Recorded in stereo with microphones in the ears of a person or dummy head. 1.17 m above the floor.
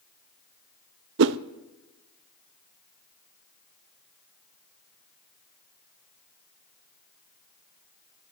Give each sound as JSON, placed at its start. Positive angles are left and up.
{"t": 1.2, "sound": "a whoosh", "side_deg": -60, "distance_m": 0.6}